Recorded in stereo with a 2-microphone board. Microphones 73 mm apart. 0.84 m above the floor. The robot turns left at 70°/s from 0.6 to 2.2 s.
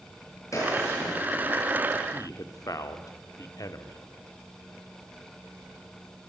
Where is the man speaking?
50° left (ahead or behind), 2.0 m; by 4.0 s 55° left (ahead or behind), 2.0 m.